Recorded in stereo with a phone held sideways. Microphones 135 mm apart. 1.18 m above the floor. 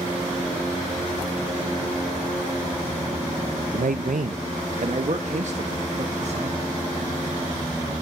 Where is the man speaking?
85° right, 0.6 m; by 6.7 s 55° right (ahead or behind), 2 m.